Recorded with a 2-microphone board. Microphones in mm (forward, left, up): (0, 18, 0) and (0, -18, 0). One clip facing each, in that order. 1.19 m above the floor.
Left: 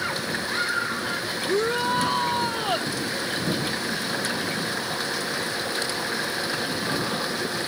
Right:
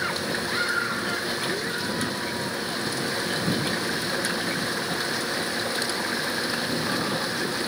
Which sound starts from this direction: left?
A shout, at 1.5 s.